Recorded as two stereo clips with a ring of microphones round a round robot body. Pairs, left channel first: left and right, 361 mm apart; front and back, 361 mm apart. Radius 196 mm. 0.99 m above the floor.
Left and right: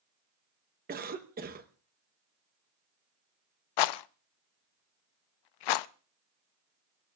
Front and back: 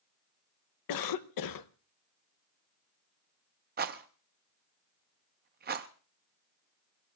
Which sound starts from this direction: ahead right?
A cough, at 0.9 s.